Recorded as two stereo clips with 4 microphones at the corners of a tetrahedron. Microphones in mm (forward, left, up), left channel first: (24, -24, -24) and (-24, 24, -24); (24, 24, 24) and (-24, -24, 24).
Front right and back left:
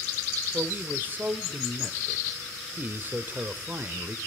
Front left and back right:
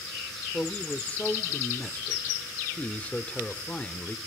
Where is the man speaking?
105° left, 1.0 m.